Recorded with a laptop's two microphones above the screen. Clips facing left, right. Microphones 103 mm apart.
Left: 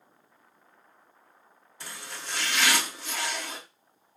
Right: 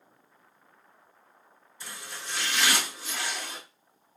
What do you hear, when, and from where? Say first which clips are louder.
1.8 s chopping: left 1 dB; 65° left (ahead or behind), 1.8 m